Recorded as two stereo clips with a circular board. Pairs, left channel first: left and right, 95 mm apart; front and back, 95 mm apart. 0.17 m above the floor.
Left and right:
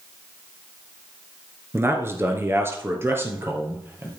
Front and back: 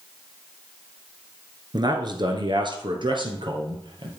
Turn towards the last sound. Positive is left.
turn(degrees=-155)